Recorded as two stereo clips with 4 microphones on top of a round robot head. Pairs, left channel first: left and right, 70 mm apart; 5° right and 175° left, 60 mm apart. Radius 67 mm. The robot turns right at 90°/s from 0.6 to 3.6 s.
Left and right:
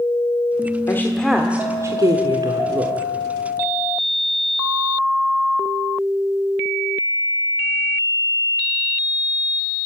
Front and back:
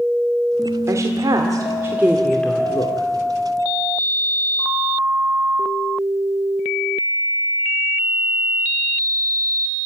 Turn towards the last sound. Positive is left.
turn(degrees=25)